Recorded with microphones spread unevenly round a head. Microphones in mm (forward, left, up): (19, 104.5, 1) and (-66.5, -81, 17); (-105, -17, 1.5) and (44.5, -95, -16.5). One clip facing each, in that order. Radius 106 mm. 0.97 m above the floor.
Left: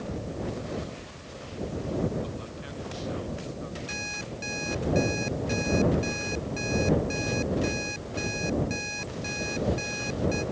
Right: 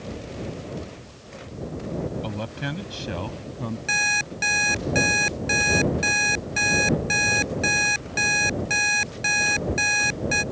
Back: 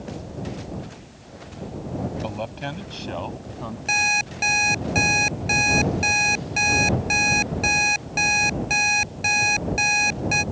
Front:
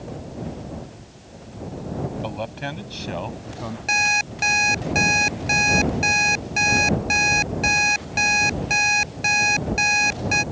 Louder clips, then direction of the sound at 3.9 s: Right 3 dB, front 1 dB; 120° right.